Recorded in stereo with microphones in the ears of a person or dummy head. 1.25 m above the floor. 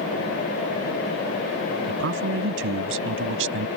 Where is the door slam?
No door slam in this recording.